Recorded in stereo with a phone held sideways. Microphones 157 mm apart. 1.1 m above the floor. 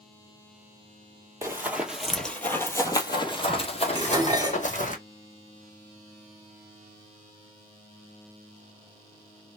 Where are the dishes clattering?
25° right (ahead or behind), 1.5 m.